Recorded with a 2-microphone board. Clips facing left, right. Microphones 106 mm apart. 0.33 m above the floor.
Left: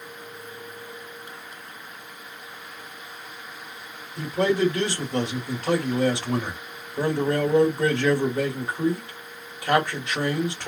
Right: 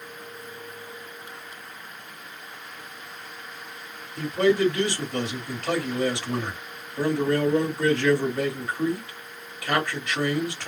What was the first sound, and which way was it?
A man speaking, 20° left (ahead or behind).